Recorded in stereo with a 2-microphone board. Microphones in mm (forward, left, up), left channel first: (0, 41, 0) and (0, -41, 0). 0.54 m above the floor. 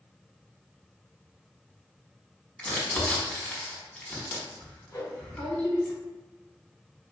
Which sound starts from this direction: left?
A whoosh, at 4.9 s.